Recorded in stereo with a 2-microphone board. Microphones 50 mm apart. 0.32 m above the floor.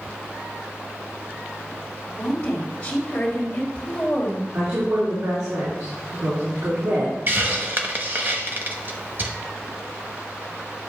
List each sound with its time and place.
2.2 s a woman speaking: 20° left (ahead or behind), 1.7 m
4.5 s a woman speaking: 75° right (ahead or behind), 3.5 m
7.3 s a hiss: 45° right (ahead or behind), 0.9 m